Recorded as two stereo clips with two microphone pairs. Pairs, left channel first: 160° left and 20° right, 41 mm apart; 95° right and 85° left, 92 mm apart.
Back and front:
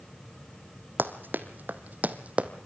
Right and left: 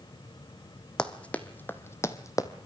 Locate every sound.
1.0 s running footsteps: 20° right, 1.4 m; by 2.5 s 60° right, 1.1 m